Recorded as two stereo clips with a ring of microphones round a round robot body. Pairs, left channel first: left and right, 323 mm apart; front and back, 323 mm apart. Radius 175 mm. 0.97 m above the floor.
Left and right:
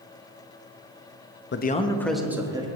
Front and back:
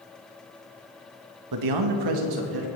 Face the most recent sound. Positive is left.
turn(degrees=-165)